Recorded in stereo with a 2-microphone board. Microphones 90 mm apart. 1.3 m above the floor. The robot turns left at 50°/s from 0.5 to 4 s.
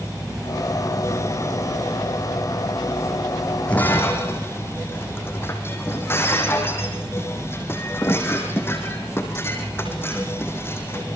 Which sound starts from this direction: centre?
Breaking glass, at 3.7 s.